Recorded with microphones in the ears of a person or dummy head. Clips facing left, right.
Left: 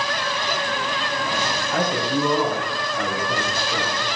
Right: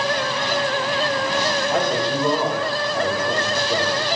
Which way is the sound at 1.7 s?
30° right (ahead or behind).